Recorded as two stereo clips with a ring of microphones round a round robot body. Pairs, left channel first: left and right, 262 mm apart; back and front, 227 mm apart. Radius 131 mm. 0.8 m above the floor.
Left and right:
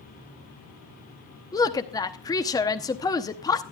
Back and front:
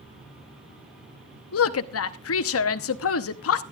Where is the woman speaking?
165° left, 0.9 m.